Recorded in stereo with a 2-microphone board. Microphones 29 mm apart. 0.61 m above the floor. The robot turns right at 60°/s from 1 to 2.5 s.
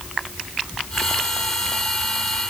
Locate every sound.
Only background noise.